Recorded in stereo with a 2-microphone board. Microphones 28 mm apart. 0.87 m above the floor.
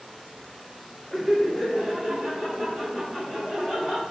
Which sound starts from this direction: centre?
Laughter, at 1.1 s.